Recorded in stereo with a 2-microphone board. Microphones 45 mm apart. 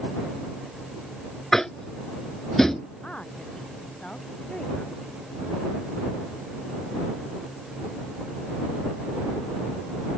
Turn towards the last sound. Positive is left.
turn(degrees=25)  # may be behind; listen again after turning